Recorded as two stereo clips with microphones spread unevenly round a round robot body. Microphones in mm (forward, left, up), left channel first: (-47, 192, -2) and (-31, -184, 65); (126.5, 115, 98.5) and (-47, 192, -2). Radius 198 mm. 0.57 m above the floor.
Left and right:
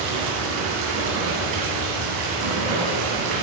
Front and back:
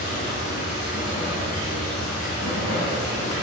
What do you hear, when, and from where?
0.0 s running water: 70° right, 2.5 m